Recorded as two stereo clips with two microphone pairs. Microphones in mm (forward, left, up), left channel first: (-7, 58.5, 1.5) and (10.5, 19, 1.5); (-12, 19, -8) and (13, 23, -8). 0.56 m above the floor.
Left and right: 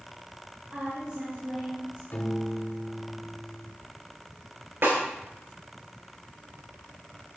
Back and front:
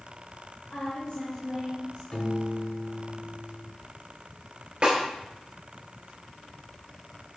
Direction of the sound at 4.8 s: 45° right.